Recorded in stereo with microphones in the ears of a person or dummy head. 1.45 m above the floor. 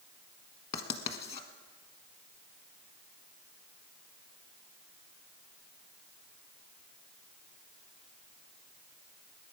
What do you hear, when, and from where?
0.7 s writing: 30° left (ahead or behind), 1.4 m